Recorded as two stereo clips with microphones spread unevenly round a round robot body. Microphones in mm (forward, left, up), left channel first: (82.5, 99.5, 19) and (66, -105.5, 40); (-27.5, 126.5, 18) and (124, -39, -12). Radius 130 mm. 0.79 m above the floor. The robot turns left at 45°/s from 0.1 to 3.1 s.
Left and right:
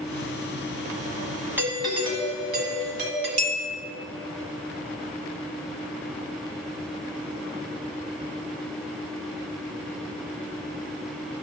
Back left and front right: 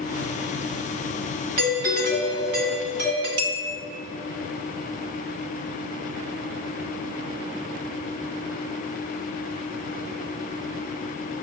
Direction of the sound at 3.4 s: 105° right.